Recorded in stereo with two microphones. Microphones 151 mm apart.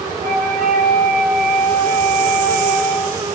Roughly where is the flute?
Right.